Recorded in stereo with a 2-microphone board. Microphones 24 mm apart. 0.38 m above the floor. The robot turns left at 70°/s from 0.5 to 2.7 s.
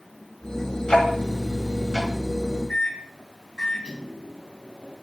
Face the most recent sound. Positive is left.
turn(degrees=50)  # may be behind; listen again after turning